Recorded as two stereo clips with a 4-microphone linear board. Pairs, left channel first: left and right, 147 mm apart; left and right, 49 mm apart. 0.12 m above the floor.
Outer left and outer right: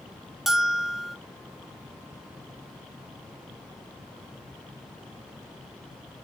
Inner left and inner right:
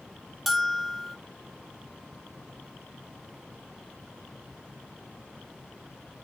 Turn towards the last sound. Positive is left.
turn(degrees=0)  # may be behind; listen again after turning